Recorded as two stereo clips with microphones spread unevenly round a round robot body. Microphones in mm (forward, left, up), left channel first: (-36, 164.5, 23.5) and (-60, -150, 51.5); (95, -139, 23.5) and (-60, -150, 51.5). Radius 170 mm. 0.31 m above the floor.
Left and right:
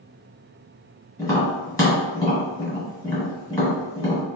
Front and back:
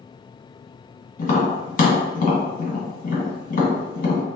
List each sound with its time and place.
1.2 s tapping: 10° left, 1.7 m